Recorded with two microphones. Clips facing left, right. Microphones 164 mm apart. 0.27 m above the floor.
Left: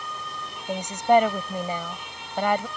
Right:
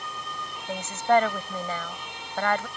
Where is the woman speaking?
15° left (ahead or behind).